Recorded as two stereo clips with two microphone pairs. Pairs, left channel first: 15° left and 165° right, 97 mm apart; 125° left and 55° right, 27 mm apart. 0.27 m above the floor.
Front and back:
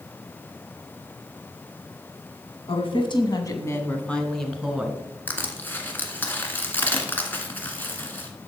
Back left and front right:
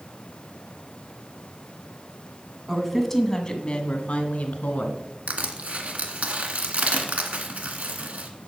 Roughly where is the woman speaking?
Ahead left.